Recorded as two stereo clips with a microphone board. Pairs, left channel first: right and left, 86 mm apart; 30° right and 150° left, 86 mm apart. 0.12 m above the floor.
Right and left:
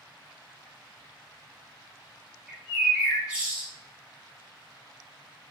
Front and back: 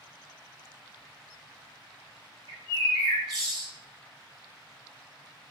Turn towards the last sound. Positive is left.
turn(degrees=170)